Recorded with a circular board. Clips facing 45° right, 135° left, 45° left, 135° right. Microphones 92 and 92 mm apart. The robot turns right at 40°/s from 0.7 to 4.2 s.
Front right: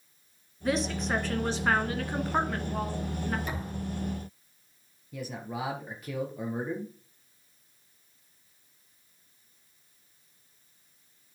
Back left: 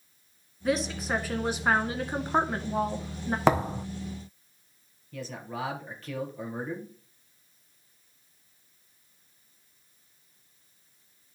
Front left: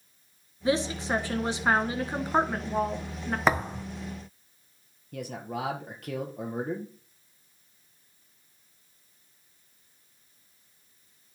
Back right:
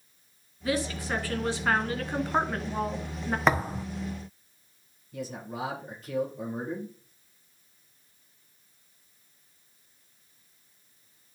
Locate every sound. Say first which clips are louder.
0.7 s a woman speaking: back left 1 dB, front left 3 dB; 45° left, 1.1 m; by 3.4 s 150° left, 1.1 m
3.5 s a thud: back left 12 dB, even; 135° left, 0.6 m; by 3.9 s 150° left, 0.6 m
5.1 s a man speaking: even, front left 2 dB; 30° left, 2.5 m